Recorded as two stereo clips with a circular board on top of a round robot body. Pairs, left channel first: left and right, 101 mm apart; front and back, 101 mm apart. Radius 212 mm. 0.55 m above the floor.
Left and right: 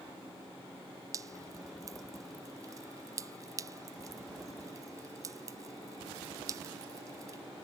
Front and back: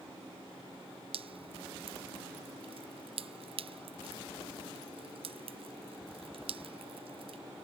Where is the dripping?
150° right.